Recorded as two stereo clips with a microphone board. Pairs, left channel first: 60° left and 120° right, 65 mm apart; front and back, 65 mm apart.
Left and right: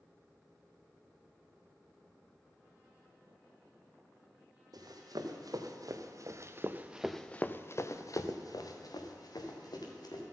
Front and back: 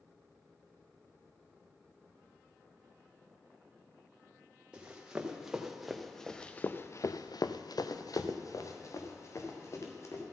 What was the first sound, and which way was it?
Running footsteps, 105° right.